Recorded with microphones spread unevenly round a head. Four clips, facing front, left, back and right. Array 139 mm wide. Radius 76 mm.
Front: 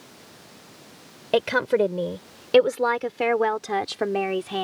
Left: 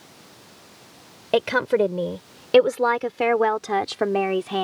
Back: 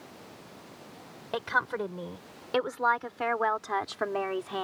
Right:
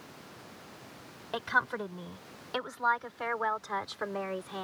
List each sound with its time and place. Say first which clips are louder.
1.3 s a woman speaking: left 11 dB, front 9 dB; 50° left; by 4.6 s 80° left